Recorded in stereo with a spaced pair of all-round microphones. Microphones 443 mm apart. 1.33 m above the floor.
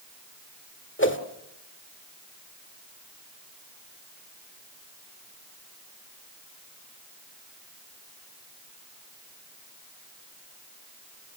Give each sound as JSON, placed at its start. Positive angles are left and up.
{"t": 1.0, "sound": "a whoosh", "side_deg": 25, "distance_m": 1.8}